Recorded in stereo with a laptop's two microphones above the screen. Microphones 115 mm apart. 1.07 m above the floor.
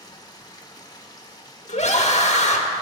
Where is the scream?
80° left, 1.1 m.